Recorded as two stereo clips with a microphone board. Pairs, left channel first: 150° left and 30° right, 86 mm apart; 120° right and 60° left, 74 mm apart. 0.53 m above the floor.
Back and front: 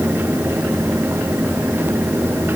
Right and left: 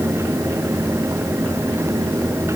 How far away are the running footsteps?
I don't hear running footsteps.